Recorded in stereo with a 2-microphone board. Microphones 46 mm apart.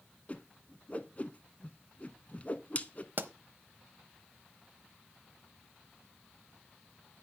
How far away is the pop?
About 0.8 m.